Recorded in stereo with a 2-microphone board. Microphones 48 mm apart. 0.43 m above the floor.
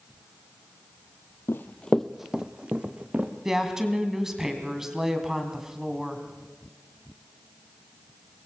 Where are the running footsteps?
55° left (ahead or behind), 0.8 m; by 3.3 s 30° right (ahead or behind), 2 m.